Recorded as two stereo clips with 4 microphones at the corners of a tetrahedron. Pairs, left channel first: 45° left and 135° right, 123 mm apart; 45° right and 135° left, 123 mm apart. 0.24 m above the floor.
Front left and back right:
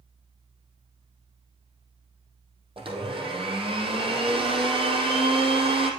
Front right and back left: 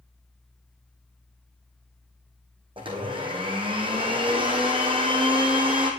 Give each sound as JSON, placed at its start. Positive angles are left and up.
{"t": 2.8, "sound": "a blender", "azimuth_deg": 180, "distance_m": 3.0}